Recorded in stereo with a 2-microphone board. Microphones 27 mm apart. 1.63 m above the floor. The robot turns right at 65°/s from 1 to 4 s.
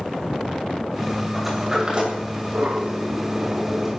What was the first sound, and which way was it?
A sliding door, centre (ahead or behind).